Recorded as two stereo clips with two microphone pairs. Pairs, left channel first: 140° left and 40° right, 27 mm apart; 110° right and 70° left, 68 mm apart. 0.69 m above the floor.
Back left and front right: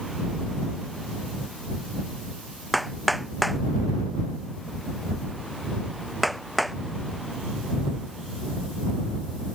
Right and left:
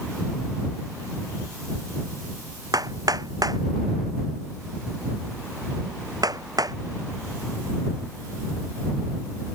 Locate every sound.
2.7 s hammering: 45° left